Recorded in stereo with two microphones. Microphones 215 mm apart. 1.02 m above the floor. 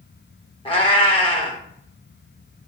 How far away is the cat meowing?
About 0.7 m.